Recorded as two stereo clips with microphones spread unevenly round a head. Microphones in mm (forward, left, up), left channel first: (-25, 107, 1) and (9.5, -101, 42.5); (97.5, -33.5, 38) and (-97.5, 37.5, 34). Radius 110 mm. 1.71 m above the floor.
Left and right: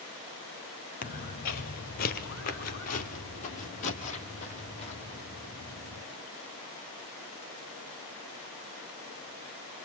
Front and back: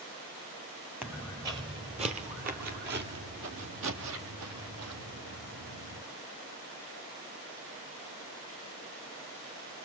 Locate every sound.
1.0 s footsteps: 80° left, 1.8 m; by 6.0 s 170° left, 3.5 m